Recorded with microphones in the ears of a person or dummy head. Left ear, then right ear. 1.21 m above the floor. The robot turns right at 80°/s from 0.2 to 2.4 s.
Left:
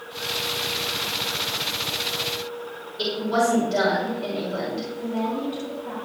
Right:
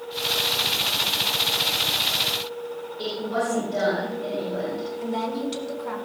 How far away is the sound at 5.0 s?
About 4 m.